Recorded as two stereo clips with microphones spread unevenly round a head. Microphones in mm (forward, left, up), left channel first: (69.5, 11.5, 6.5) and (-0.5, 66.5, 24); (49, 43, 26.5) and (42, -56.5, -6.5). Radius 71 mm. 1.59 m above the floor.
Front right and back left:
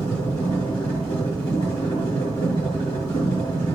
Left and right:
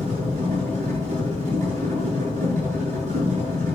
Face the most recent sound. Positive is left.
turn(degrees=-105)